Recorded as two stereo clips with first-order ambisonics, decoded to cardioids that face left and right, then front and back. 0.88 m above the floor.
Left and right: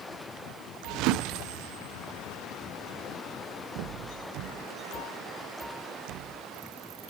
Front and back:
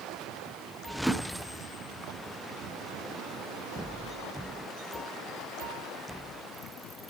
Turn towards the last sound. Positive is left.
turn(degrees=-90)